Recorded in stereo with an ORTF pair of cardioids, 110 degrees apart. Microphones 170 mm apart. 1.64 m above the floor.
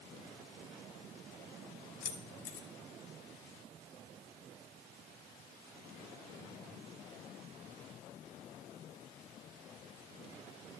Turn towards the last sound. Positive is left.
turn(degrees=55)